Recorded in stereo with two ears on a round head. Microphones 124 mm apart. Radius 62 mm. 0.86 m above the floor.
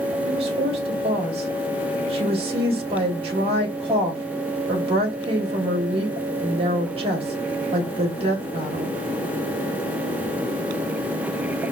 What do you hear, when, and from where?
0.2 s a woman speaking: 40° right (ahead or behind), 1.6 m